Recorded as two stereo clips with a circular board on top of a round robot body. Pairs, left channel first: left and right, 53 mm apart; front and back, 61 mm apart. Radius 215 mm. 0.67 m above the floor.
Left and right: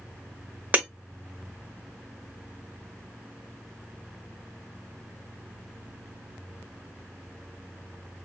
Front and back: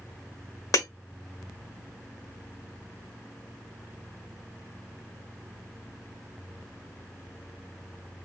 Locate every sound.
0.7 s breaking glass: 30° right, 1.0 m